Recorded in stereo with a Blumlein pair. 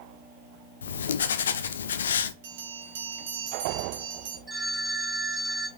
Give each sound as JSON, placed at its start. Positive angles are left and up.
{"t": 0.8, "sound": "writing", "azimuth_deg": 65, "distance_m": 0.7}
{"t": 2.4, "sound": "a bell", "azimuth_deg": -55, "distance_m": 2.0}
{"t": 4.5, "sound": "a phone ringing", "azimuth_deg": -10, "distance_m": 2.0}